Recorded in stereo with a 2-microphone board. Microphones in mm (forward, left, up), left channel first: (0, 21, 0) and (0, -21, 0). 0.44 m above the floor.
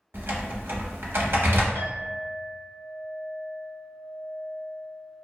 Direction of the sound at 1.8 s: 55° left (ahead or behind).